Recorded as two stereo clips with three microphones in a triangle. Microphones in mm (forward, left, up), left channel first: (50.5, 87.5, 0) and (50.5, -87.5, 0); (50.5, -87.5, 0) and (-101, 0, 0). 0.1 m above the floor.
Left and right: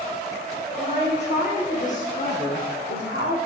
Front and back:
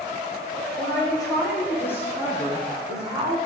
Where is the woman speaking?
35° left, 5.5 m; by 3.4 s 75° left, 4 m.